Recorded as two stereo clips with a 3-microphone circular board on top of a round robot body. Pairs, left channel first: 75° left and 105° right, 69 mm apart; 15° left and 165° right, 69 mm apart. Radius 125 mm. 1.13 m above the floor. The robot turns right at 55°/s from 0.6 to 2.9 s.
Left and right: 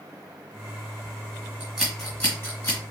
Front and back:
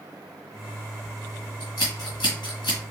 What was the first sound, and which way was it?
Scissors, 25° right.